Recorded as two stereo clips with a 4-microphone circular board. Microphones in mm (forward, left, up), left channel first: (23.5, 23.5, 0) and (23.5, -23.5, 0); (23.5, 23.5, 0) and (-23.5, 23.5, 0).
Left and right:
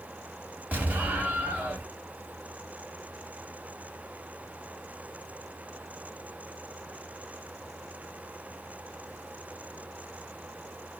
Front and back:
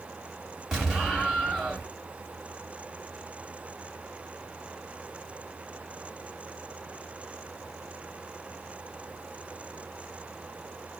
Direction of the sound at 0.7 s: 100° right.